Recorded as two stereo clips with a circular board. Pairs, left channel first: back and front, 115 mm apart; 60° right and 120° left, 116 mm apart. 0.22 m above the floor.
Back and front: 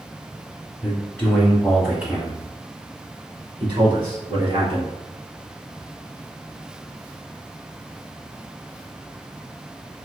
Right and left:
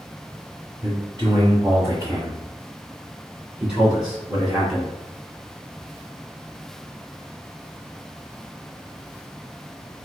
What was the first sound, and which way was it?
A man speaking, 120° left.